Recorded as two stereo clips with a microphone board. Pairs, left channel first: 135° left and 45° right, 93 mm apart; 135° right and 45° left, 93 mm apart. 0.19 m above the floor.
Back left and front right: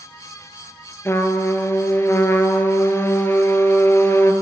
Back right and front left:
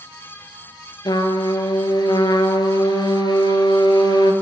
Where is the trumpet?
165° right, 0.6 m.